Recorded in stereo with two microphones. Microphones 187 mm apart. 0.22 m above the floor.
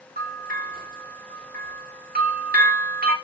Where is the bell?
50° right (ahead or behind), 8 m.